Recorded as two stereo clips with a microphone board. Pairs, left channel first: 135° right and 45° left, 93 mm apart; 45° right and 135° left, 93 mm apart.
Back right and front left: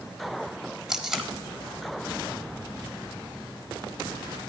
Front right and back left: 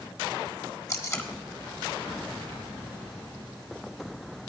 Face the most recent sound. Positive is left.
turn(degrees=-35)